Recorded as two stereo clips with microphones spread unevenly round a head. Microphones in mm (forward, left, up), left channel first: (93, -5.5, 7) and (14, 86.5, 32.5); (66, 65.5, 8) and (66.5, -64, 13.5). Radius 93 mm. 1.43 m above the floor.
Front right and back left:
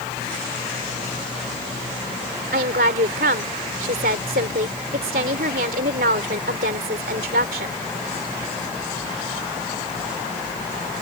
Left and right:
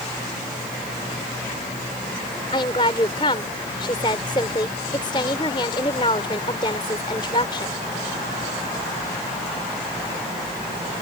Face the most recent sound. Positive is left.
turn(degrees=160)